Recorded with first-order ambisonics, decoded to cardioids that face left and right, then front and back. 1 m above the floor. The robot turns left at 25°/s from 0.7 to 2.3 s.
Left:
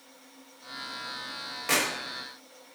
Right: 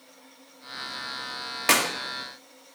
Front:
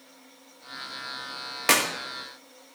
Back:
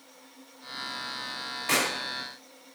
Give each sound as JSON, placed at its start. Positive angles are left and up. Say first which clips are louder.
{"t": 1.7, "sound": "a clap", "louder": "right 5 dB, front 4 dB", "azimuth_deg": -40, "distance_m": 1.2}